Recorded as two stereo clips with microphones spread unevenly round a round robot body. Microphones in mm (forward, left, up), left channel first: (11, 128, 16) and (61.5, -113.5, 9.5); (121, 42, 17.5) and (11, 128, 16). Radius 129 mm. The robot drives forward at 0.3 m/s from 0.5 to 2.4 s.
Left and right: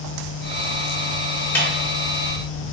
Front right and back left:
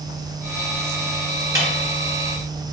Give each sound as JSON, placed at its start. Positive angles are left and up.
{"t": 1.6, "sound": "a snare drum", "azimuth_deg": 180, "distance_m": 0.9}